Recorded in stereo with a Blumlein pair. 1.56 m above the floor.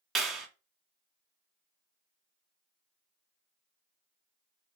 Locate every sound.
0.1 s a clap: 20° right, 0.5 m